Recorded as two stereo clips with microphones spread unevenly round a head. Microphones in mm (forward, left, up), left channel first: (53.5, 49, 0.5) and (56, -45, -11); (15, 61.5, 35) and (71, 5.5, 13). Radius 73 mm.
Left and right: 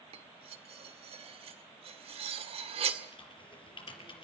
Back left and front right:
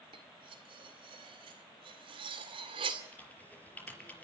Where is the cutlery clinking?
80° right, 2 m.